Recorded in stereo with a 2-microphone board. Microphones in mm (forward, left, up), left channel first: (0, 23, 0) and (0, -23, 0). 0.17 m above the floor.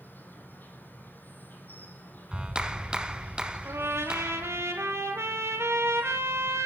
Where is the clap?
20° right (ahead or behind), 0.9 m.